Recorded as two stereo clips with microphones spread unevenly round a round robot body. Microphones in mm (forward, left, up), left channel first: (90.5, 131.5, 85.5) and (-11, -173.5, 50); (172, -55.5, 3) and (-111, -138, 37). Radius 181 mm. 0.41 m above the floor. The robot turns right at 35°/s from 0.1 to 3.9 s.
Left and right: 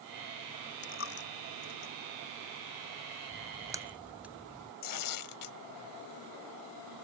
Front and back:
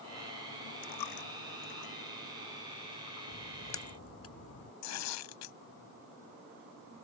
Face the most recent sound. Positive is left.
turn(degrees=55)